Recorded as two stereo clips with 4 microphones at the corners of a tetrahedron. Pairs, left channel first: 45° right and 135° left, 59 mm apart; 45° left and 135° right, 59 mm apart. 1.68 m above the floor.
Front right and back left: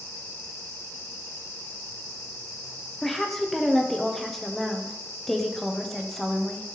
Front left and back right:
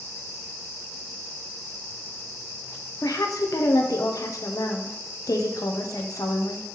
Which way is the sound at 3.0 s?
40° left.